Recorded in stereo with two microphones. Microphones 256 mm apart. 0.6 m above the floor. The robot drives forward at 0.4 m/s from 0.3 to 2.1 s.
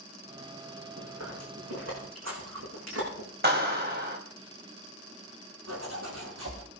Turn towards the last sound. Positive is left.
turn(degrees=-80)